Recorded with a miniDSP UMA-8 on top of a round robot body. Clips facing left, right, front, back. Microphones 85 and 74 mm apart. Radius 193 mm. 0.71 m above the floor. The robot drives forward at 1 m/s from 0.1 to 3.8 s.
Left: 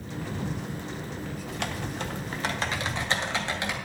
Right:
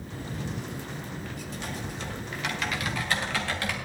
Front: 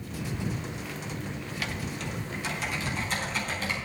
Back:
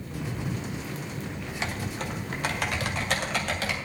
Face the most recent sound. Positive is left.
turn(degrees=160)